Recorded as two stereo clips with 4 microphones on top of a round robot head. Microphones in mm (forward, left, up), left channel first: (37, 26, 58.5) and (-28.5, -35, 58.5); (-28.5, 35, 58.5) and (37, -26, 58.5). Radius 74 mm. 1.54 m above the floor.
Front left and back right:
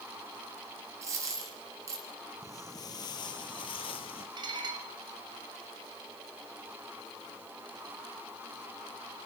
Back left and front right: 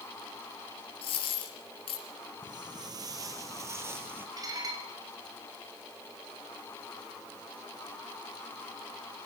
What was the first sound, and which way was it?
A dropped coin, 165° left.